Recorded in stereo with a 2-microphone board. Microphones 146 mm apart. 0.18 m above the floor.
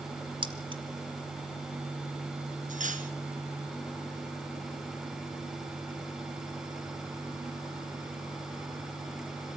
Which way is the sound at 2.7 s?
65° right (ahead or behind).